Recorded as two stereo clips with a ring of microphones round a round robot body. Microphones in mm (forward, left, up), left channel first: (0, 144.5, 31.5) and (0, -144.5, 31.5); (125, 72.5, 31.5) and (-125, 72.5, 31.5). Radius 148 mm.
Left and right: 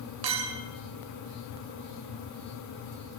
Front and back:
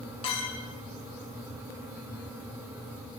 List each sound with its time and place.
0.2 s a clink: 70° right, 2.5 m